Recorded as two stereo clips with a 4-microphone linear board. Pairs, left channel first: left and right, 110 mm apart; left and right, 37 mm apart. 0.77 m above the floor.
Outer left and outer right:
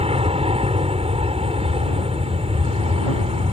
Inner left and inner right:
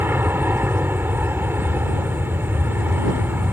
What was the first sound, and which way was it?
An aircraft, 60° right (ahead or behind).